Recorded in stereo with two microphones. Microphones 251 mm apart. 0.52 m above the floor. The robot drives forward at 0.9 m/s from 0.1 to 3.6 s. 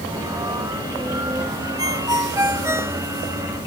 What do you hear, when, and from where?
1.8 s a ringtone: 15° right (ahead or behind); by 3.0 s 10° right (ahead or behind)